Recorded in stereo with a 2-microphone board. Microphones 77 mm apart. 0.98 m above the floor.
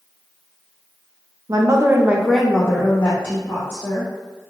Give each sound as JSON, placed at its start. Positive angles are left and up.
{"t": 1.5, "sound": "a woman speaking", "side_deg": -50, "distance_m": 0.7}